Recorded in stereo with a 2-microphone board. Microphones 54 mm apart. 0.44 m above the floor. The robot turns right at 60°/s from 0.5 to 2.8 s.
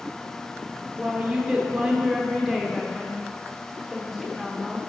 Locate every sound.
1.0 s a woman speaking: 20° right (ahead or behind), 0.8 m; by 4.8 s centre (ahead or behind), 0.8 m